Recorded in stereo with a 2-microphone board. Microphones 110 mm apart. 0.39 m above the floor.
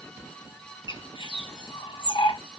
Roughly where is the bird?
Left.